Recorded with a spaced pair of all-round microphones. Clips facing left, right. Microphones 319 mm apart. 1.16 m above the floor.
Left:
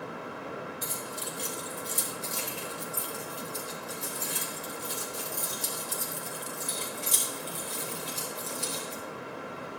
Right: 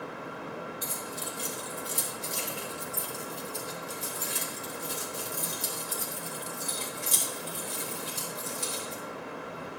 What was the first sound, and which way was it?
Keys jangling, 5° right (ahead or behind).